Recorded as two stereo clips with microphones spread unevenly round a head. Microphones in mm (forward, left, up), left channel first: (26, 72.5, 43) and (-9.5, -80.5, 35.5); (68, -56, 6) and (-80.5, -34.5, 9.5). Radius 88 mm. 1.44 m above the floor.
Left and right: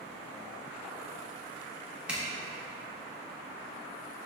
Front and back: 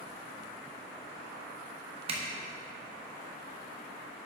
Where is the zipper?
170° left, 0.8 m.